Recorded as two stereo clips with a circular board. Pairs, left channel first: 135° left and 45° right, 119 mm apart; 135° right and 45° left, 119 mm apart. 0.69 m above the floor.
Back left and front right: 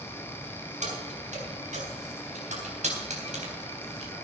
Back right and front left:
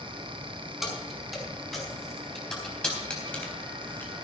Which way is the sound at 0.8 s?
45° right.